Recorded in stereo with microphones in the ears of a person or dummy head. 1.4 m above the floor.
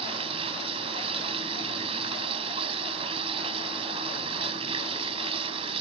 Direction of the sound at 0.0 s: 35° right (ahead or behind).